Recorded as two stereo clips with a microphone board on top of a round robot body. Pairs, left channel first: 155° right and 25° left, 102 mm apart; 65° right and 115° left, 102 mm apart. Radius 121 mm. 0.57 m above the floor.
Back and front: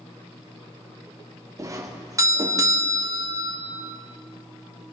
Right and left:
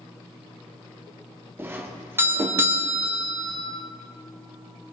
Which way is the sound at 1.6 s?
60° left.